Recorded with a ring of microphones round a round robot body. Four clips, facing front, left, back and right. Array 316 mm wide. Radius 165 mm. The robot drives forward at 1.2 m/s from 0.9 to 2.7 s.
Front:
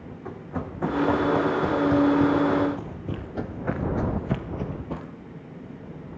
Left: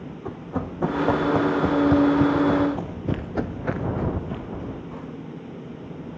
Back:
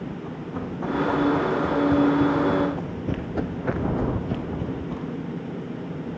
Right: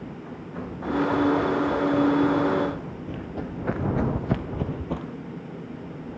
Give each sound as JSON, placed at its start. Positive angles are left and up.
{"t": 0.2, "sound": "running footsteps", "azimuth_deg": 80, "distance_m": 3.5}